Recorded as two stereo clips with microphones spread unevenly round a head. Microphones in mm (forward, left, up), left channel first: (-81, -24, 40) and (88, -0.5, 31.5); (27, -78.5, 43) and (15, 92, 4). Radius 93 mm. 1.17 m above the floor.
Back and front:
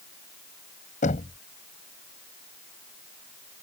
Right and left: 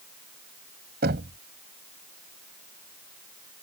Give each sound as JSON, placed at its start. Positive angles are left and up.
{"t": 1.0, "sound": "knocking", "azimuth_deg": 135}